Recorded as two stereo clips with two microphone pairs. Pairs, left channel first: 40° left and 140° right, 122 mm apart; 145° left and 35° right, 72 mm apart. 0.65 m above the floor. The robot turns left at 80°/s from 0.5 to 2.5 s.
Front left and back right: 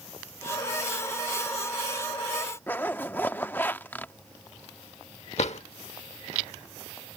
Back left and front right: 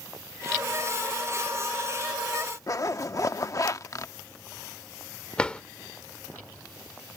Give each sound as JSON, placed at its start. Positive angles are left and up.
{"t": 2.7, "sound": "a zipper", "azimuth_deg": 110}
{"t": 5.4, "sound": "a drawer", "azimuth_deg": 70}